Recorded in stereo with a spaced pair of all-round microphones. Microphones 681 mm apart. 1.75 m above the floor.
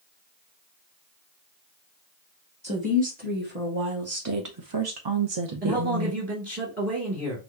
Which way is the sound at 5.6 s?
10° right (ahead or behind).